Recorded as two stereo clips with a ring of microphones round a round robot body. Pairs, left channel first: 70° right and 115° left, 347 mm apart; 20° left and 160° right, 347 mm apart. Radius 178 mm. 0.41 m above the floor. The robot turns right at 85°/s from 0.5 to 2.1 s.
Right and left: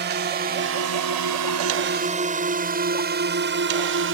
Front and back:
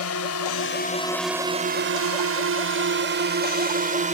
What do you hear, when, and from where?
0.0 s a drone: 60° left; by 4.1 s 140° left